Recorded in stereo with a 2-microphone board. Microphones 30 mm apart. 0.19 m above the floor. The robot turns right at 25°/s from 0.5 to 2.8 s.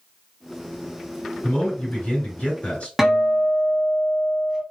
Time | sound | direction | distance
1.4 | a man speaking | 90° left | 2.5 m
3.0 | a guitar | 5° right (ahead or behind) | 0.9 m